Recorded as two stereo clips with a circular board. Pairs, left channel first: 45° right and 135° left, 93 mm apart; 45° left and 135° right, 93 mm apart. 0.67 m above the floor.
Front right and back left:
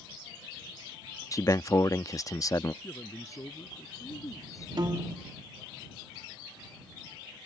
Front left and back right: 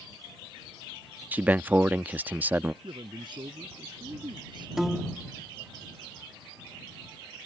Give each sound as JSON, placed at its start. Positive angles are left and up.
{"t": 1.3, "sound": "a man speaking", "azimuth_deg": -70}
{"t": 2.8, "sound": "a man speaking", "azimuth_deg": -100}
{"t": 4.8, "sound": "a piano", "azimuth_deg": 140}